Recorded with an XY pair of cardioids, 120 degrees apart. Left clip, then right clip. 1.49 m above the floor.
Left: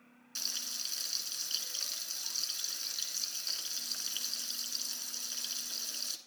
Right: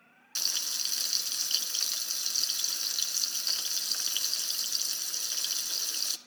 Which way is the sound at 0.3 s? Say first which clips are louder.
Right 6 dB; 45° right.